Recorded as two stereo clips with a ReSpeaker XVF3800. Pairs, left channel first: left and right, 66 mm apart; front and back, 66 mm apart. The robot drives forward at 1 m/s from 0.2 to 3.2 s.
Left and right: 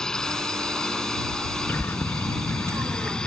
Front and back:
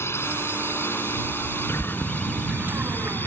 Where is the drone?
15° left; by 3.3 s 20° left.